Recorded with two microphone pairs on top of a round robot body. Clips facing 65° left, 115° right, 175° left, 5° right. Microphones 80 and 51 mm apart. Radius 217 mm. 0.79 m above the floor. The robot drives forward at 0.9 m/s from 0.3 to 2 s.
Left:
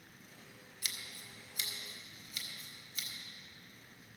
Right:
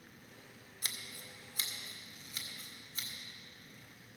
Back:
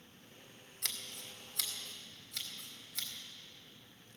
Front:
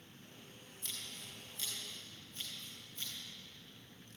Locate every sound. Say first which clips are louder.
0.8 s scissors: right 1 dB, back 3 dB; 165° right, 0.9 m; by 3.1 s 175° right, 1.9 m